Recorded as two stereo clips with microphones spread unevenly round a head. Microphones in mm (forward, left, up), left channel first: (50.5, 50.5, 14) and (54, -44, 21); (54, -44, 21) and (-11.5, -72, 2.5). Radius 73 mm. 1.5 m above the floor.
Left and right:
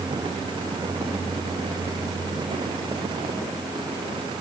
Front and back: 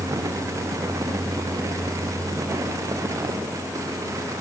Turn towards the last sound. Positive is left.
No sound to turn to.